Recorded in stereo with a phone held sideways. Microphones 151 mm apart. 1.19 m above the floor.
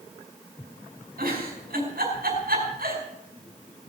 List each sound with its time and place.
1.2 s a giggle: 85° right, 5.5 m